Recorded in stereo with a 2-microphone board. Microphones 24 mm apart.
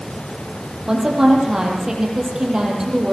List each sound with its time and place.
0.9 s a woman speaking: 20° right (ahead or behind), 6.5 m